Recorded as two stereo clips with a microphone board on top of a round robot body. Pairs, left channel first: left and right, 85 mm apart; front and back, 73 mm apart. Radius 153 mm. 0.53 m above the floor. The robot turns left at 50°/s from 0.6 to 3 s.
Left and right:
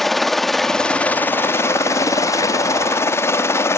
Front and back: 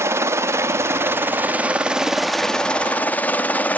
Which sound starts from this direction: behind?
A helicopter, at 0.0 s.